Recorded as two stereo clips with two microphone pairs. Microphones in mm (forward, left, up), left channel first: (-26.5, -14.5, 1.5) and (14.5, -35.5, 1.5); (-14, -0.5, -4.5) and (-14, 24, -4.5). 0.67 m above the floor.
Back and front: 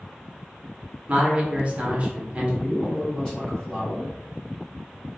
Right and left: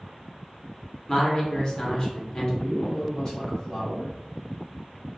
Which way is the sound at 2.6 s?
145° right.